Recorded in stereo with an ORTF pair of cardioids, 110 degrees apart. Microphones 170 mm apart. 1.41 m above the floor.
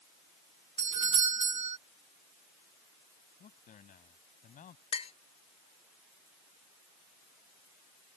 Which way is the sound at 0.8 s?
40° right.